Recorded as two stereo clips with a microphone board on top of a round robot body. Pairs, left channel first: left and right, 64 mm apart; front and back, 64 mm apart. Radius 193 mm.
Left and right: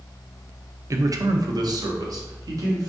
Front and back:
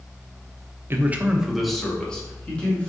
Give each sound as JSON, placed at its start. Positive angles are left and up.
{"t": 0.9, "sound": "a man speaking", "azimuth_deg": -130, "distance_m": 0.7}